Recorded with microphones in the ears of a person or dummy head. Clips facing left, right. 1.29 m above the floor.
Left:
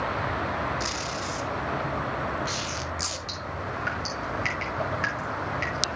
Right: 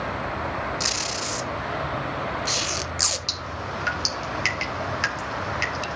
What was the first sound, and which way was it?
Tape being pulled, 60° right (ahead or behind).